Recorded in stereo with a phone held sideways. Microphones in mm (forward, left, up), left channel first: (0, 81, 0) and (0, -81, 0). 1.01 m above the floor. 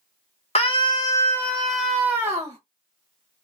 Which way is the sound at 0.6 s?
40° left (ahead or behind).